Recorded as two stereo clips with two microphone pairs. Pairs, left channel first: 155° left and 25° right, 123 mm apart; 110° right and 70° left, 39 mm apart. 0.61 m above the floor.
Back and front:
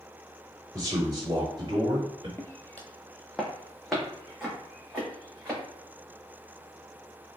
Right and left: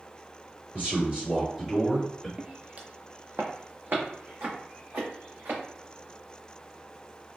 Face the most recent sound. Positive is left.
turn(degrees=60)